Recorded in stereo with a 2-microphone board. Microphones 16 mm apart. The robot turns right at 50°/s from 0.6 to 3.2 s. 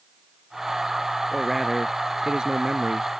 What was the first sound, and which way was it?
A man speaking, 175° left.